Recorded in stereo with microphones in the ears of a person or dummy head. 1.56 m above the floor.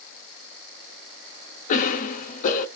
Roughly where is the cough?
Left.